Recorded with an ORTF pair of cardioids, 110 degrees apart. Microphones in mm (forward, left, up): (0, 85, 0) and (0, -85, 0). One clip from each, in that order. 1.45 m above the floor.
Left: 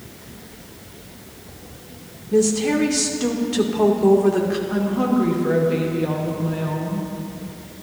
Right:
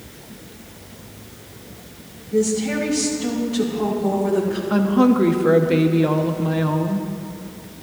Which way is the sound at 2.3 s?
70° left.